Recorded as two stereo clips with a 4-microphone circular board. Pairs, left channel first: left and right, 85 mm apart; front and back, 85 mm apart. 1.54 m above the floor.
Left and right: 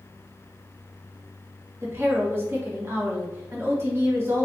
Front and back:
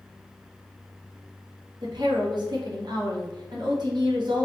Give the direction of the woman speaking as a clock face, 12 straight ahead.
5 o'clock.